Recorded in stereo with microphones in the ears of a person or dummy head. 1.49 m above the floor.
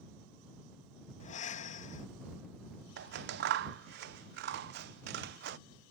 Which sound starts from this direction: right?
Scissors, at 3.0 s.